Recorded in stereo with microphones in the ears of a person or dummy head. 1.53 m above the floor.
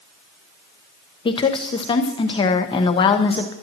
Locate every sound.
1.2 s a woman speaking: 30° left (ahead or behind), 0.8 m